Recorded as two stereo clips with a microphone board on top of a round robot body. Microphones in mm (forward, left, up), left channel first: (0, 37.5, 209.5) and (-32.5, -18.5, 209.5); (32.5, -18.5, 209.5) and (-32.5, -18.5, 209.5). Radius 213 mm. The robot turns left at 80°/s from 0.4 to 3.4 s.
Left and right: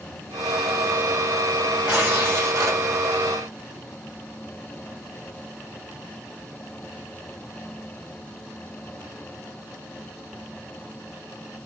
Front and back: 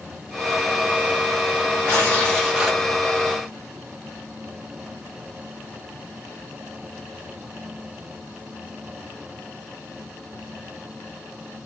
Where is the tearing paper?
40° right, 2 m; by 2.8 s 115° right, 2 m.